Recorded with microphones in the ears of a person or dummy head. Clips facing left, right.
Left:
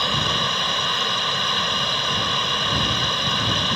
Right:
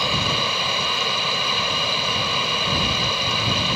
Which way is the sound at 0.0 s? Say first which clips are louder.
Right 1 dB; 5° right (ahead or behind).